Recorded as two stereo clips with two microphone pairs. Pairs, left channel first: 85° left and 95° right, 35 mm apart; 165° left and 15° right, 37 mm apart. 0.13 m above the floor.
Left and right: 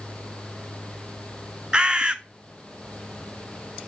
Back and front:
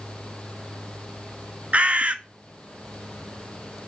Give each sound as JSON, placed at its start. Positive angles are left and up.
{"t": 1.7, "sound": "a bird", "azimuth_deg": -35, "distance_m": 0.5}